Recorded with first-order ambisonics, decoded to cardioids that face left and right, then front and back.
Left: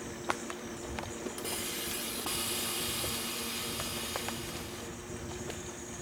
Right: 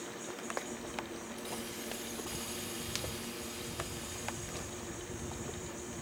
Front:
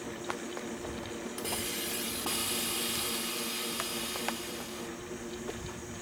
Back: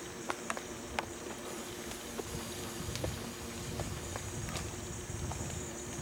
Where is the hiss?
40° left, 2 m.